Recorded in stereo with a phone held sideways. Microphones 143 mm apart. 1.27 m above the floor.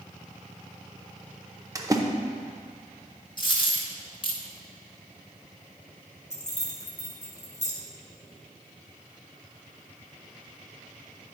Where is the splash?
25° right (ahead or behind), 0.7 m.